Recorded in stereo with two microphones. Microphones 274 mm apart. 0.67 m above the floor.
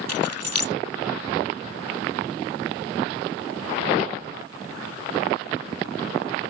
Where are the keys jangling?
60° left (ahead or behind).